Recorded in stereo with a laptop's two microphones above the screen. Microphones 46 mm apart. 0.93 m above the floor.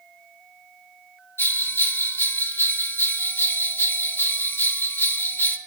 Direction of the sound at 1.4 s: 45° left (ahead or behind).